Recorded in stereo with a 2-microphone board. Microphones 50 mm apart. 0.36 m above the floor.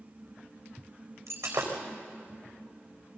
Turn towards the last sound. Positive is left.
turn(degrees=-75)  # may be behind; listen again after turning